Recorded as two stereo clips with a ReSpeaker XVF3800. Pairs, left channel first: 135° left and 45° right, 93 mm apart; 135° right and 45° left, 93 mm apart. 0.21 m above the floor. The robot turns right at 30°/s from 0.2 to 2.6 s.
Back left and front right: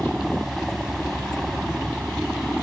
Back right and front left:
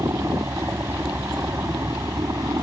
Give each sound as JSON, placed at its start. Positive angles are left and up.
{"t": 0.0, "sound": "a helicopter", "azimuth_deg": 40}